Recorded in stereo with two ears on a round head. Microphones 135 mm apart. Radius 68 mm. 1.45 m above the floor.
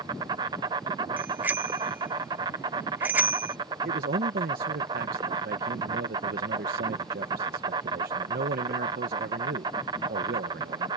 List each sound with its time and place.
0.0 s an insect: 25° right (ahead or behind)
1.2 s a bicycle bell: 10° right (ahead or behind)
3.9 s a man speaking: 75° right (ahead or behind)